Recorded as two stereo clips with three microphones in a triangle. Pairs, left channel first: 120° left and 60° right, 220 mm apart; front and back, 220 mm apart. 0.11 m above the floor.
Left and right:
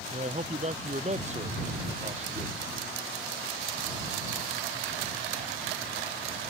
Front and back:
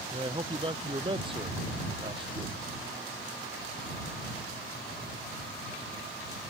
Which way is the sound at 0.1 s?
115° right.